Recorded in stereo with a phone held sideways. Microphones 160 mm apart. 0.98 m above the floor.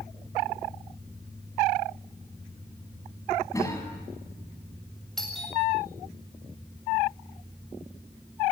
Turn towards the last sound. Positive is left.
turn(degrees=0)  # may be behind; listen again after turning